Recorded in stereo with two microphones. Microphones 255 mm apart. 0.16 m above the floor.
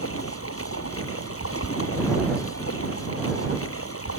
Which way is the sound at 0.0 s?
65° left (ahead or behind).